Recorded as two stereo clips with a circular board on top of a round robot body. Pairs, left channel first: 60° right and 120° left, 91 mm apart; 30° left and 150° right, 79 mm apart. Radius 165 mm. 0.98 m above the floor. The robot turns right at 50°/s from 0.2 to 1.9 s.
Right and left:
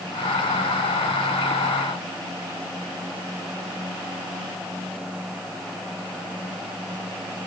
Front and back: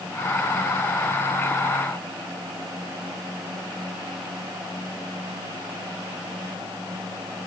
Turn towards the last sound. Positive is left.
No sound to turn to.